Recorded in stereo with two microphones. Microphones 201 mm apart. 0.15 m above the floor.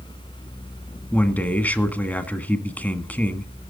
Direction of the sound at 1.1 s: 10° left (ahead or behind).